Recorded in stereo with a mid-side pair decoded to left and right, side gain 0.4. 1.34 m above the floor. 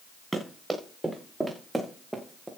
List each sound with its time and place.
0.3 s running footsteps: 15° right, 8.5 m